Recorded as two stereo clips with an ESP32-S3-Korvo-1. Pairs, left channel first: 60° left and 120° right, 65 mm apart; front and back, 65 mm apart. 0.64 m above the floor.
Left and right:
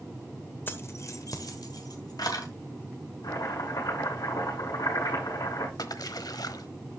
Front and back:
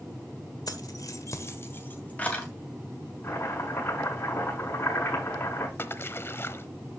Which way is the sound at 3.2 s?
50° left.